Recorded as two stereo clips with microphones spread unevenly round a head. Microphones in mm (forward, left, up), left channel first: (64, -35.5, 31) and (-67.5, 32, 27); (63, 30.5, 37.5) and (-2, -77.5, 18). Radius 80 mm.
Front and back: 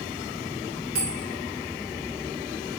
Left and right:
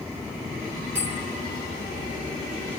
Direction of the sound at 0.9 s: 165° left.